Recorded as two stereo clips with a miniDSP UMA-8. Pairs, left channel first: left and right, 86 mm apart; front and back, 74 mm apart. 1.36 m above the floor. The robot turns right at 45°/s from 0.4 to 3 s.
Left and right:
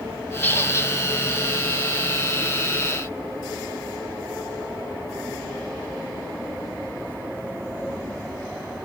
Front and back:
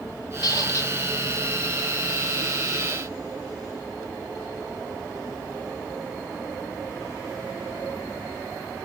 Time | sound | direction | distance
0.4 | a squeak | 20° left | 0.9 m